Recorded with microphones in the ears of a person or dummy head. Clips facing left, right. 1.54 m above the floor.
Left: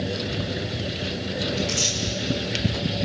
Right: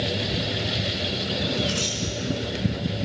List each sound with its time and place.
1.6 s tearing paper: 30° left (ahead or behind), 6 m